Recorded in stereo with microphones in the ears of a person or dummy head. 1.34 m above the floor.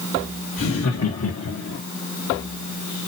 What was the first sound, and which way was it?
Laughter, 80° left.